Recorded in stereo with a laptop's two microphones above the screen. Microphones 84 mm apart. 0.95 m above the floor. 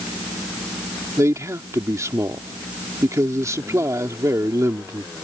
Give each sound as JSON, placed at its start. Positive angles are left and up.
{"t": 1.2, "sound": "a man speaking", "side_deg": -40}